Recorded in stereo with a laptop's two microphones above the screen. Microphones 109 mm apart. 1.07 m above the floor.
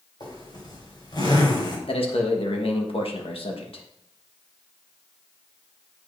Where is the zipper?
50° left (ahead or behind), 4 m.